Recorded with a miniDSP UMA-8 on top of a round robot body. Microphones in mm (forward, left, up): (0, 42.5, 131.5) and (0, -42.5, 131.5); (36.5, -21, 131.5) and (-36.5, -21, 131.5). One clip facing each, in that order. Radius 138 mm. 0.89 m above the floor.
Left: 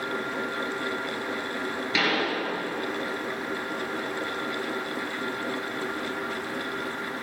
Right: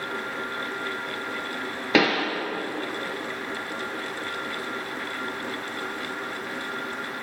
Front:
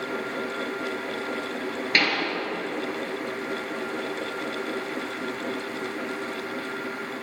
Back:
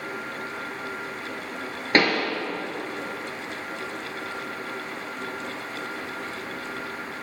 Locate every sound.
1.9 s a pop: 125° right, 3.5 m